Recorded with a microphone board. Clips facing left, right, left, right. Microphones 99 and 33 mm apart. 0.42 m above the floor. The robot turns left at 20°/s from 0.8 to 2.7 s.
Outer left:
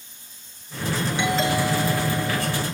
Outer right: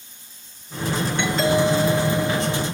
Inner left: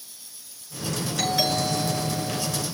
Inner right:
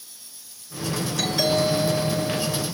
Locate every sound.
1.2 s a doorbell: 10° left (ahead or behind), 9 m; by 2.6 s 20° right (ahead or behind), 9 m